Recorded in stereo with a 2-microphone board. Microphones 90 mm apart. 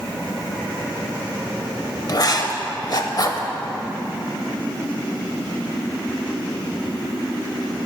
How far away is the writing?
About 0.6 m.